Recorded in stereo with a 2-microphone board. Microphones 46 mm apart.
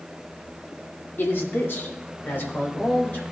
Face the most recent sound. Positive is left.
turn(degrees=40)  # may be behind; listen again after turning